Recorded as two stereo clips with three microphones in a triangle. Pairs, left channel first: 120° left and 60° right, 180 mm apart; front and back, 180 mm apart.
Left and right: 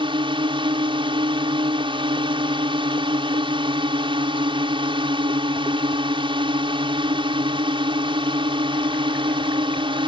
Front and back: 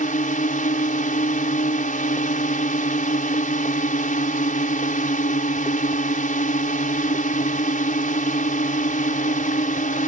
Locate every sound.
0.0 s a drone: 10° right